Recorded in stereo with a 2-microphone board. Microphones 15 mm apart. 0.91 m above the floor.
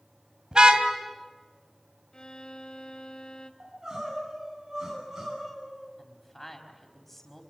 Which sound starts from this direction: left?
A violin, at 2.1 s.